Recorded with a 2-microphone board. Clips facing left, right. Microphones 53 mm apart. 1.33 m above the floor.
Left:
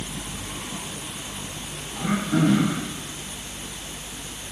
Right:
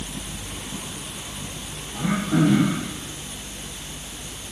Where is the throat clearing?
15° right (ahead or behind), 8 m.